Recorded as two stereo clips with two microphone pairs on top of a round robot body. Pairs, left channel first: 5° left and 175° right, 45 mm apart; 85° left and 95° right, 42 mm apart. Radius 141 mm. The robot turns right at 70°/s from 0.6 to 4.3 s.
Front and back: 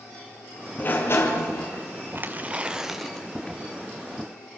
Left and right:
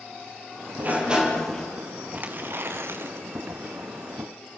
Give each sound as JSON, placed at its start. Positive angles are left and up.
{"t": 0.8, "sound": "a sliding door", "azimuth_deg": -50, "distance_m": 4.5}
{"t": 2.1, "sound": "tearing paper", "azimuth_deg": -150, "distance_m": 2.5}